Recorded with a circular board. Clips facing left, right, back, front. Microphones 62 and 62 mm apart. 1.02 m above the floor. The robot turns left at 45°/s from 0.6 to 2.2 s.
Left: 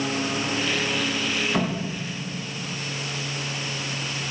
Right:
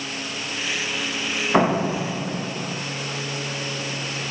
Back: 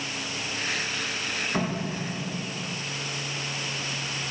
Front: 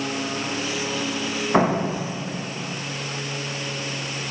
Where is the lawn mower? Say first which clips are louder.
Left 5 dB, front 7 dB; 30° left; by 4.3 s 45° right.